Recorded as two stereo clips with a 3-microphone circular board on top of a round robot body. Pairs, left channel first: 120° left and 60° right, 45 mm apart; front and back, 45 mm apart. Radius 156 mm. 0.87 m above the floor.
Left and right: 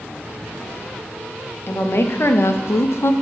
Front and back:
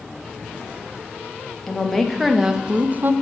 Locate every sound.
1.7 s a woman speaking: 80° left, 1.4 m; by 3.1 s 145° left, 0.6 m